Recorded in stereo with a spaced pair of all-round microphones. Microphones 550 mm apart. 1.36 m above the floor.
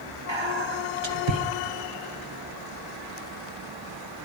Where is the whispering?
55° right (ahead or behind), 1.2 m.